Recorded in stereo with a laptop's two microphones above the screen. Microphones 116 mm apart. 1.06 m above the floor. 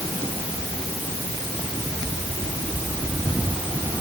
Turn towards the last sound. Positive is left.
No sound to turn to.